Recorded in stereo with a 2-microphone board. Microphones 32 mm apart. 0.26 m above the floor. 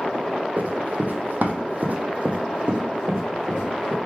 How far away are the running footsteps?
About 0.7 m.